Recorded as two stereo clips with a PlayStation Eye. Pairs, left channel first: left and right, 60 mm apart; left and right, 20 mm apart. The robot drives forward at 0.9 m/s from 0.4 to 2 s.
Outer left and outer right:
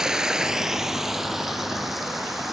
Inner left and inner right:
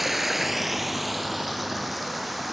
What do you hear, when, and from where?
0.0 s running water: 10° right (ahead or behind), 0.8 m; by 2.5 s 5° right (ahead or behind), 2.5 m